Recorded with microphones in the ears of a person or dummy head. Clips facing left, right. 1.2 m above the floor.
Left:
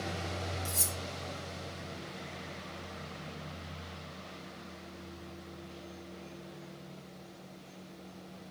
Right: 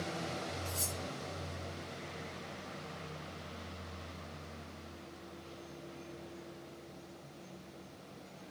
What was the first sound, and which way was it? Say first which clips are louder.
Cutlery clinking: left 1 dB; 60° left (ahead or behind).